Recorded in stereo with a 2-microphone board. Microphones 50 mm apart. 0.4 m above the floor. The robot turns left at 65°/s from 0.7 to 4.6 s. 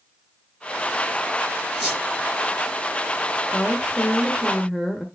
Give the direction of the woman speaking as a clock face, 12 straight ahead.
10 o'clock.